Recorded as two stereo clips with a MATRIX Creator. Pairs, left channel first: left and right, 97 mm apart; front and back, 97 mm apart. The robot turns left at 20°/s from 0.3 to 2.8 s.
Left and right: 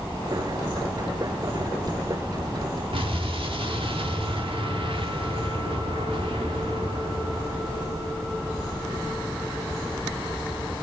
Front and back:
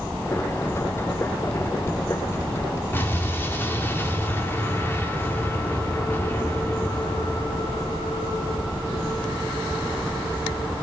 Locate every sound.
2.9 s an explosion: 65° right, 1.5 m